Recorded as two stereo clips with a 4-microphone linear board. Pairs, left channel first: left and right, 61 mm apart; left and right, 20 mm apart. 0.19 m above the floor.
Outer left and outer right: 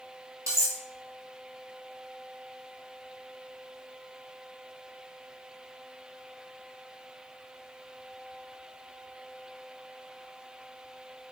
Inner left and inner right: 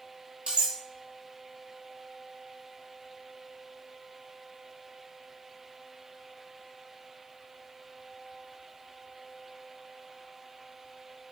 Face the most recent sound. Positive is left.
turn(degrees=-55)  # may be behind; listen again after turning